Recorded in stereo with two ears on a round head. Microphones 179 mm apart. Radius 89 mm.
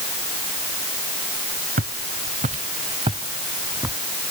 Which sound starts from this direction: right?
Footsteps, at 1.8 s.